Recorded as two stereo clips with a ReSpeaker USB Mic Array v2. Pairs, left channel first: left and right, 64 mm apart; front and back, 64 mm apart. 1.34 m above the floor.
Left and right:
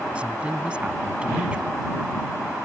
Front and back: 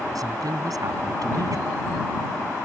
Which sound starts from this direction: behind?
A woman speaking, at 0.1 s.